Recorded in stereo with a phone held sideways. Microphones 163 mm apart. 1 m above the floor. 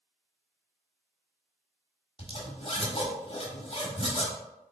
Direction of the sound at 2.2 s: 35° left (ahead or behind).